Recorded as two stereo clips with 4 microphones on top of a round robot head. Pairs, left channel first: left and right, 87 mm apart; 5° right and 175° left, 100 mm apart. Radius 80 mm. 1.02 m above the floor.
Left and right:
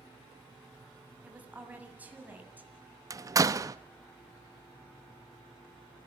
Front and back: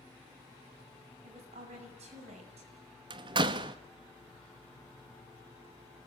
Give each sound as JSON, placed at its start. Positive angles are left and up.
{"t": 1.2, "sound": "a woman speaking", "azimuth_deg": -160, "distance_m": 7.5}
{"t": 3.1, "sound": "a door slam", "azimuth_deg": -140, "distance_m": 1.3}